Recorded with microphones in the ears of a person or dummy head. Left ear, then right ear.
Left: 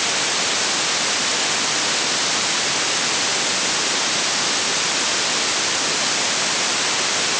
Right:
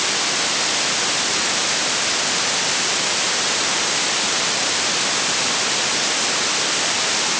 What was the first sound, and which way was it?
Only background noise.